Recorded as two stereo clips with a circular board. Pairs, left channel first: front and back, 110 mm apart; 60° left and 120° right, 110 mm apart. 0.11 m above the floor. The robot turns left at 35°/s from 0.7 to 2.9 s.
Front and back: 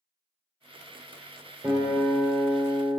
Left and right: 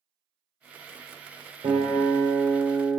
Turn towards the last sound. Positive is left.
turn(degrees=-170)